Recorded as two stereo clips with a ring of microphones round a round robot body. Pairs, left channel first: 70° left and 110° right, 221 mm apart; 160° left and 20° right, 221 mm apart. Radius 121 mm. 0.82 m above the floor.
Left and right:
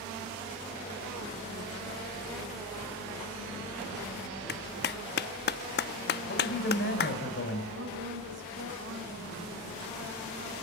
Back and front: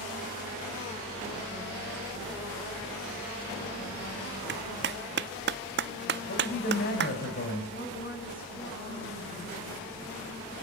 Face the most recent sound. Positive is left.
turn(degrees=-150)